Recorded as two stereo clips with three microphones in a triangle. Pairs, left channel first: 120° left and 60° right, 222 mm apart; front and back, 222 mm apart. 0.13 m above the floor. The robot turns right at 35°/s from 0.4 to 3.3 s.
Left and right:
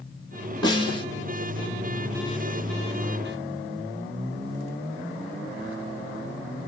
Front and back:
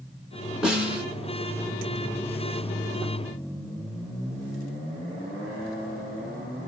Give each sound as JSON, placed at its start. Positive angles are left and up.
{"t": 0.6, "sound": "a snare drum", "azimuth_deg": 100, "distance_m": 1.7}